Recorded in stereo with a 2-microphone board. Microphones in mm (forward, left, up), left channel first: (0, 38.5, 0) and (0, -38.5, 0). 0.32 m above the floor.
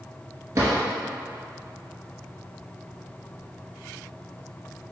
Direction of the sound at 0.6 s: 45° right (ahead or behind).